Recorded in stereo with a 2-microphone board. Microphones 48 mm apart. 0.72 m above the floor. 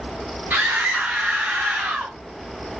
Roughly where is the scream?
Right.